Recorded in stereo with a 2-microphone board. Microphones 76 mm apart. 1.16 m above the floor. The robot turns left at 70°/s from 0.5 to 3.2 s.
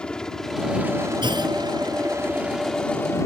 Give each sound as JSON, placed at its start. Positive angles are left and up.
{"t": 0.0, "sound": "a helicopter", "side_deg": 10}
{"t": 1.2, "sound": "a clunk", "side_deg": -80}